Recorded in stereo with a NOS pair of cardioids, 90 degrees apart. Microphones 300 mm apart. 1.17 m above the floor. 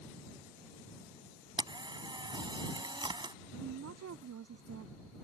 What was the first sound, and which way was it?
A camera shutter, 15° right.